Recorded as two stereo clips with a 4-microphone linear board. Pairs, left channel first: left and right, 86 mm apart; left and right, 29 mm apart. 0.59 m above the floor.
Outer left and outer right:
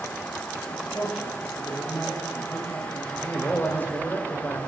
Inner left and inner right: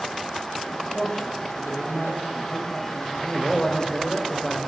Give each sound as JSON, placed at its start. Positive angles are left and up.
{"t": 0.7, "sound": "a man speaking", "side_deg": 10, "distance_m": 3.5}
{"t": 3.1, "sound": "a man speaking", "side_deg": 25, "distance_m": 2.0}